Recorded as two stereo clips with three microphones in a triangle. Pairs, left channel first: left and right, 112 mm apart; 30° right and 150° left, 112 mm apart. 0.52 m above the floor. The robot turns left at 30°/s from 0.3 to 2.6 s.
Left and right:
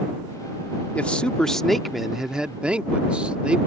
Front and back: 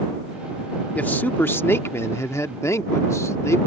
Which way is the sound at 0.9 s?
25° left.